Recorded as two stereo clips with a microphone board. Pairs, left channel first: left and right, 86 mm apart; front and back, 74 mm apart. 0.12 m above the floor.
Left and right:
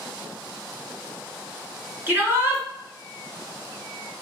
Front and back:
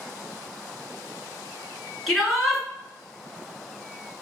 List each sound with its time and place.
2.1 s a shout: 85° right, 1.4 m